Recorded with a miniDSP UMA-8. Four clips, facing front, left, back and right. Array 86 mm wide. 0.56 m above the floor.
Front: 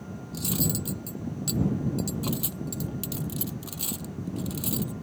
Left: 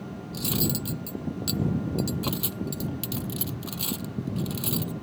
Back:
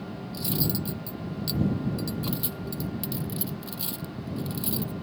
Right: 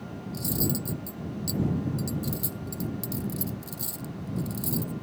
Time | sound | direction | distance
0.3 | cutlery clinking | 75° left | ?